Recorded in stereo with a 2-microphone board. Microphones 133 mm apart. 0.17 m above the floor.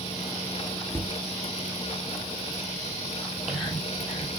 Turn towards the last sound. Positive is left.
turn(degrees=-5)  # may be behind; listen again after turning